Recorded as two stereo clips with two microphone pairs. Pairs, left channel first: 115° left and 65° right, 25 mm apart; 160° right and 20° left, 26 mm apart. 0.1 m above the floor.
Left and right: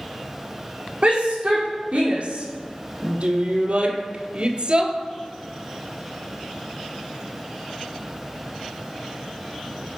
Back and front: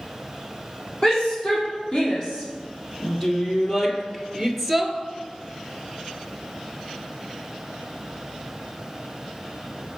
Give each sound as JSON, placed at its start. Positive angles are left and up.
{"t": 1.0, "sound": "a shout", "azimuth_deg": -105, "distance_m": 5.0}